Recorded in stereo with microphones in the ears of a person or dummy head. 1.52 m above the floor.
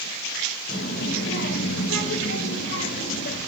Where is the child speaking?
60° left (ahead or behind), 1.1 m.